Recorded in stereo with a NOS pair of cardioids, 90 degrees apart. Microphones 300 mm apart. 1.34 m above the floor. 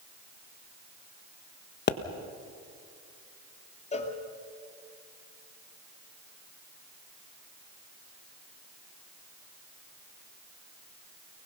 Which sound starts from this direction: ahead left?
A pop, at 1.9 s.